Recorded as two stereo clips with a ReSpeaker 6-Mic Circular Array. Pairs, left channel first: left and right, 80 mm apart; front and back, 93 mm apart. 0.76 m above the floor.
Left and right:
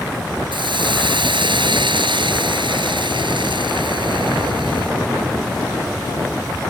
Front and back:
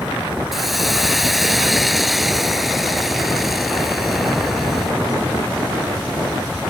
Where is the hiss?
90° right.